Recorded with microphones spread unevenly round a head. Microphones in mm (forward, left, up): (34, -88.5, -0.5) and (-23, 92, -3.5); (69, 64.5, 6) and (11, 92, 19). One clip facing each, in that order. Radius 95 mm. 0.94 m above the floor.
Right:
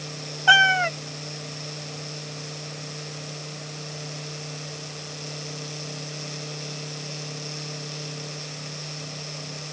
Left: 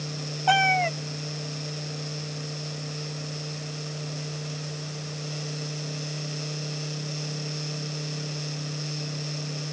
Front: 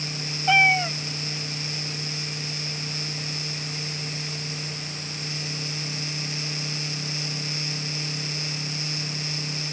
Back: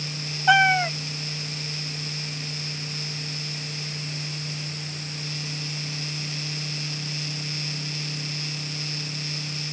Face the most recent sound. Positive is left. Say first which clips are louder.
# left 1 dB, back 2 dB
turn(degrees=-150)